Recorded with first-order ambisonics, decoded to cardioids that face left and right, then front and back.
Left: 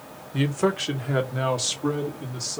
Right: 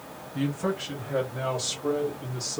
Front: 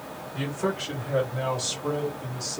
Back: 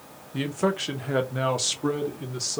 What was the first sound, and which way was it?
A man speaking, 115° left.